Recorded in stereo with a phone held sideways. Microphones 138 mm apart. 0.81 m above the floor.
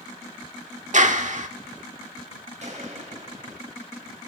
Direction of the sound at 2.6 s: 55° right (ahead or behind).